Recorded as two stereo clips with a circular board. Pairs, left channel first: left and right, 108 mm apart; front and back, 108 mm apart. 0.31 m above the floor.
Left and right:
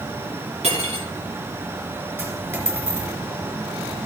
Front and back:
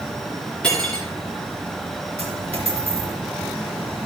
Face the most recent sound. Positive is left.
turn(degrees=-160)